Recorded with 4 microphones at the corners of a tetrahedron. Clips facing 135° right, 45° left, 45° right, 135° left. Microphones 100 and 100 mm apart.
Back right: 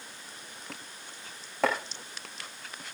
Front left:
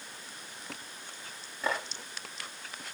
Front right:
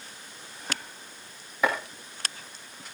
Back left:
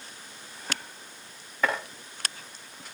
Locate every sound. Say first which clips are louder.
1.6 s chopping: back right 5 dB, front right 1 dB; 125° right, 5.5 m